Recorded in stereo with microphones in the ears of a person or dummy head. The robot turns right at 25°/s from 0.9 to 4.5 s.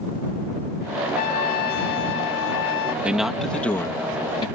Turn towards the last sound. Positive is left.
turn(degrees=30)